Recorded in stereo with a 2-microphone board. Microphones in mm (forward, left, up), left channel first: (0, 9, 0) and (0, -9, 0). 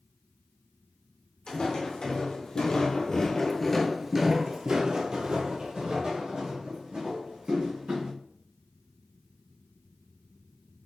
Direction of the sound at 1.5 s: 65° left (ahead or behind).